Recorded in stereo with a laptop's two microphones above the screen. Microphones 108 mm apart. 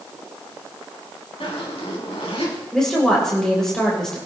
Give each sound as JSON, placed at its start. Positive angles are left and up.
{"t": 1.4, "sound": "a zipper", "side_deg": 70, "distance_m": 3.5}
{"t": 2.7, "sound": "a woman speaking", "side_deg": 5, "distance_m": 3.5}